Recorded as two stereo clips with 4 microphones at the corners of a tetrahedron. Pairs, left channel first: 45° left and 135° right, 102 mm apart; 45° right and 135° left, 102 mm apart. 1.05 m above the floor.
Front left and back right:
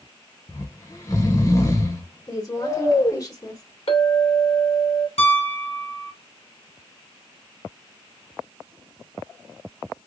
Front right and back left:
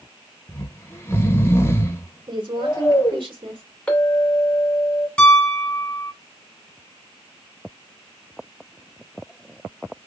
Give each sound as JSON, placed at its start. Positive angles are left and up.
{"t": 0.5, "sound": "snoring", "azimuth_deg": 5, "distance_m": 1.0}
{"t": 2.3, "sound": "a woman speaking", "azimuth_deg": 100, "distance_m": 2.5}
{"t": 3.9, "sound": "a clink", "azimuth_deg": 35, "distance_m": 2.5}
{"t": 5.2, "sound": "a piano", "azimuth_deg": 35, "distance_m": 1.5}